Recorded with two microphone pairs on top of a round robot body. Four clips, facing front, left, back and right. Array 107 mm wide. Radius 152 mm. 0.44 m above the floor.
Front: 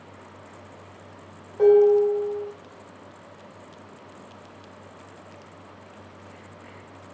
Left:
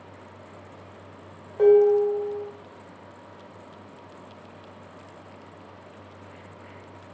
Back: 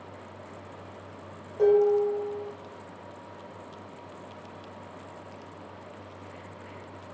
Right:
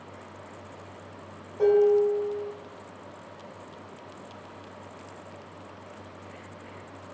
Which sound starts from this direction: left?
Dishes clattering, at 1.6 s.